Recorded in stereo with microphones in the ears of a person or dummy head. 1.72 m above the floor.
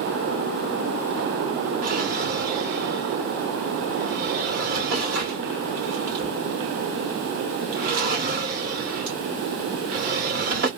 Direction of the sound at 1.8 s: 45° right (ahead or behind).